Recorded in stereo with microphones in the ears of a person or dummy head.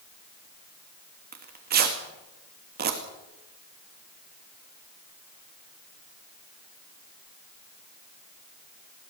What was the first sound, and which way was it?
Tearing paper, 50° right (ahead or behind).